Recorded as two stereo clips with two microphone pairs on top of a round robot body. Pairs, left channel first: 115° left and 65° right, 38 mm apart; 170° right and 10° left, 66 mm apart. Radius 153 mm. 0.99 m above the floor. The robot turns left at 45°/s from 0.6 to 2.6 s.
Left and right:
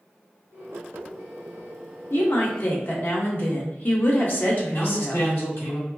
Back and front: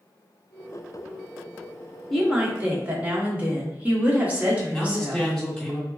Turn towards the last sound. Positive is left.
turn(degrees=105)